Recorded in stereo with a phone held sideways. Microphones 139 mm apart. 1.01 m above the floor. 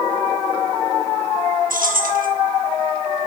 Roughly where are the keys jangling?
Right.